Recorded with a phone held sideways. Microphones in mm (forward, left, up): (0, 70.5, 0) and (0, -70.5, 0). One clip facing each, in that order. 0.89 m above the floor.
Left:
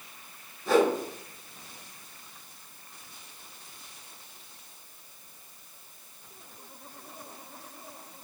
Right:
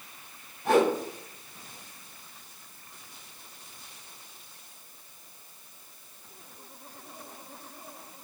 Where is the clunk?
I don't hear a clunk.